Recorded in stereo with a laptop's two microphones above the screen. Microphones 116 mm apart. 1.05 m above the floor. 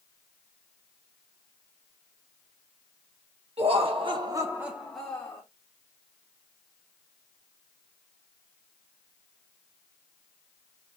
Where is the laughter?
65° right (ahead or behind), 1.2 m; by 5.4 s 20° left (ahead or behind), 1.3 m.